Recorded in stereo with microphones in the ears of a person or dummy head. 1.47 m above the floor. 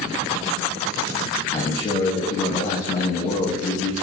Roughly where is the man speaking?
Left.